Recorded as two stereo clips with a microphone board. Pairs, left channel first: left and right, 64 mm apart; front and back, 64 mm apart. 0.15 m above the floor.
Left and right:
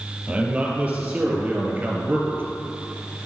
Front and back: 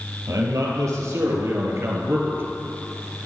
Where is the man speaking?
155° right, 4 m; by 2.4 s 135° right, 2.5 m.